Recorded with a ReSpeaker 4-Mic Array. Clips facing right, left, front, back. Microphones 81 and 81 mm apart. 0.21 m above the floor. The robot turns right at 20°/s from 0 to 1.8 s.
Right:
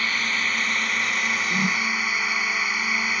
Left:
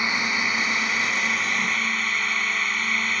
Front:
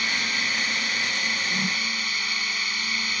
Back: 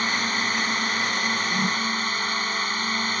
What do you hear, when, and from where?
0.0 s a drone: 155° left; by 3.2 s 170° right
1.5 s a whoosh: 105° right; by 1.8 s 100° right